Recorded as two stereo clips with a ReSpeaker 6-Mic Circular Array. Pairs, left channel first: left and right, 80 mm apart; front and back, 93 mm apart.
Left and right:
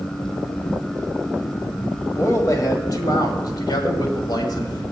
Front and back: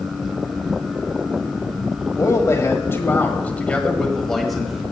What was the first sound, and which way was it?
A man speaking, 45° left.